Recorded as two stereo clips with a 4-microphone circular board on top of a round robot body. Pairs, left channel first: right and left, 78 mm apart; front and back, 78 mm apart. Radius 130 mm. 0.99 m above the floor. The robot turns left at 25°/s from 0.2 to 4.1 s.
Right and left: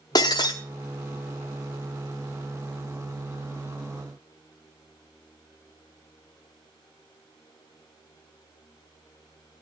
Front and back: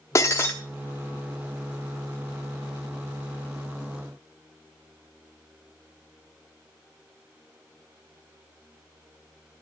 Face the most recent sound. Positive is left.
turn(degrees=-150)